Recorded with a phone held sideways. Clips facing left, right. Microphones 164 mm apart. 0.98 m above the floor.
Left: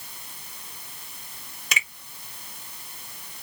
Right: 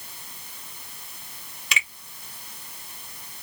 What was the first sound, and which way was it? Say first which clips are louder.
A finger snap: even; 40° left (ahead or behind).